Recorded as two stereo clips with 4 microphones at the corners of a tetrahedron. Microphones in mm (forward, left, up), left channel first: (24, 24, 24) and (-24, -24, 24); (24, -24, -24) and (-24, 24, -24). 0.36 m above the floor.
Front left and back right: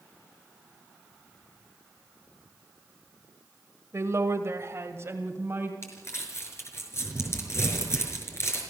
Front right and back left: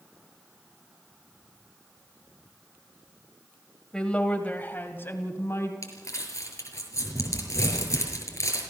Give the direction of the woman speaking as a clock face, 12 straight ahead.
4 o'clock.